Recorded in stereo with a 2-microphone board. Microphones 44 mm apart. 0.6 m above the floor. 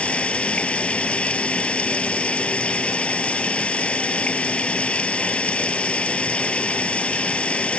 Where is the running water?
25° left (ahead or behind).